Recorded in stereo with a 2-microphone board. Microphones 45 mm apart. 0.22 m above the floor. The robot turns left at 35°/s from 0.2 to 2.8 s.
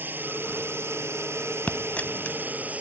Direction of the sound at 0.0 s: 55° right.